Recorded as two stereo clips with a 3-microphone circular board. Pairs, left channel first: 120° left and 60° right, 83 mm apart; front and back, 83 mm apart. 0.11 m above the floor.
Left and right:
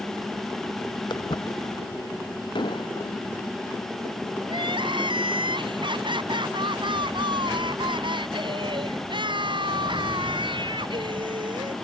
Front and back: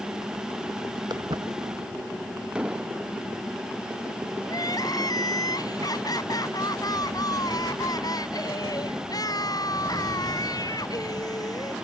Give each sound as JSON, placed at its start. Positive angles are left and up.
{"t": 1.1, "sound": "footsteps", "azimuth_deg": 145}
{"t": 2.5, "sound": "an explosion", "azimuth_deg": 100}
{"t": 4.5, "sound": "crying", "azimuth_deg": -40}